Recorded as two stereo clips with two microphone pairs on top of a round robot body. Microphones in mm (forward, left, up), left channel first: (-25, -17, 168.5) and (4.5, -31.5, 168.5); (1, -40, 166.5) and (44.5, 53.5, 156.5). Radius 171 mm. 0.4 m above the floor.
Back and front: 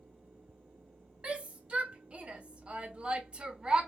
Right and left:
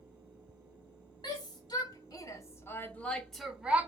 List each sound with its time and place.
1.2 s a shout: 75° right, 1.8 m; by 3.9 s 15° left, 1.1 m